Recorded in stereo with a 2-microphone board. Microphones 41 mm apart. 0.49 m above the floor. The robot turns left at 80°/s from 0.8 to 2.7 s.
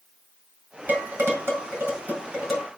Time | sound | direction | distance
0.9 | dishes clattering | 40° right (ahead or behind) | 4 m